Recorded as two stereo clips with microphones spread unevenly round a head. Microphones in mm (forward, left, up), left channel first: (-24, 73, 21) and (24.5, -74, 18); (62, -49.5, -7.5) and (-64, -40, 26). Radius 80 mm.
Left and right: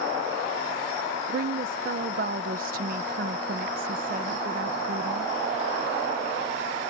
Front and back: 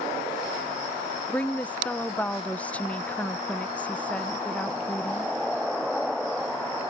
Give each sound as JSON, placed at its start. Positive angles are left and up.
{"t": 1.3, "sound": "a woman speaking", "azimuth_deg": -95}